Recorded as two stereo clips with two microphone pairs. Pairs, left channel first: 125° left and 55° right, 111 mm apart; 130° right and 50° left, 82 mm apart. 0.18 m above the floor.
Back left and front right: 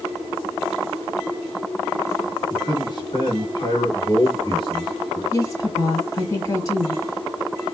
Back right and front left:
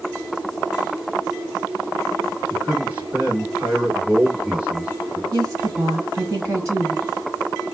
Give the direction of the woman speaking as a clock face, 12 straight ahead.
9 o'clock.